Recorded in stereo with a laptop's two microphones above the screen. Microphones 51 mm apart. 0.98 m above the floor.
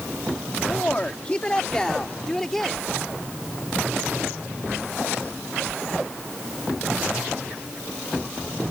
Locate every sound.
0.7 s a woman speaking: 35° left (ahead or behind); by 2.8 s 5° left (ahead or behind)